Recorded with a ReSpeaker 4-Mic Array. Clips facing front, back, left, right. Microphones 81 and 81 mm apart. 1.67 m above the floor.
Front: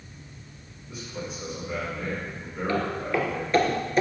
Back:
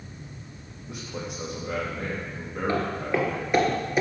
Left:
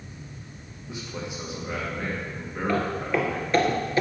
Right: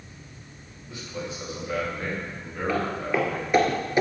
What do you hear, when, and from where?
0.9 s a man speaking: 160° left, 3 m
2.7 s footsteps: 175° right, 1.8 m; by 4.0 s 105° right, 1.7 m